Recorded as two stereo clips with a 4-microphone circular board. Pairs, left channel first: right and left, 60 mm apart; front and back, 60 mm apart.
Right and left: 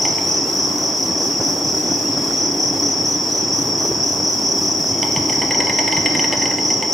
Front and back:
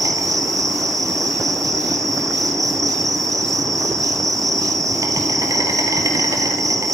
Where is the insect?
Straight behind, 1.8 m.